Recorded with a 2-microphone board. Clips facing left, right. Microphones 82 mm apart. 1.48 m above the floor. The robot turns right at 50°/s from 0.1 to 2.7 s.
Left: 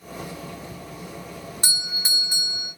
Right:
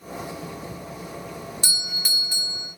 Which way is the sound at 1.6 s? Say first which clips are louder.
Left 1 dB; 130° left.